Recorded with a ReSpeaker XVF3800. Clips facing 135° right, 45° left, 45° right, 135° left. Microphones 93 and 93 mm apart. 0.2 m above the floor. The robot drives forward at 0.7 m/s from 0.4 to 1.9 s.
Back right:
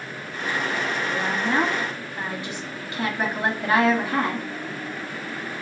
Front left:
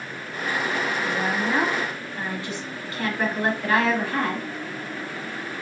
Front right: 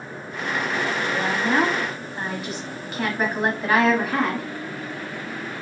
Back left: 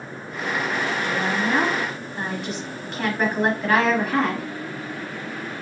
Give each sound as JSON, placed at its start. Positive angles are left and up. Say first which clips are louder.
{"t": 1.0, "sound": "a woman speaking", "louder": "even, even", "azimuth_deg": -35, "distance_m": 1.1}